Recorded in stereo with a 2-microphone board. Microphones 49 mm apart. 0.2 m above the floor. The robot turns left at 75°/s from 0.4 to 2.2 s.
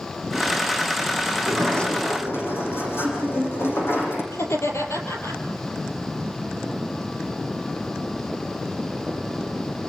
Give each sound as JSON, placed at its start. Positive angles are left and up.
{"t": 1.3, "sound": "a sliding door", "azimuth_deg": -165, "distance_m": 8.0}
{"t": 4.3, "sound": "laughter", "side_deg": 70, "distance_m": 6.0}